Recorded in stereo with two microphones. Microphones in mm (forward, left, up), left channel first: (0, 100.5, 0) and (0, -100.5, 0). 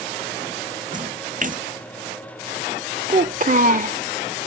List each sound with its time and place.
0.9 s a splash: 40° right (ahead or behind)
3.1 s a child speaking: 45° right (ahead or behind)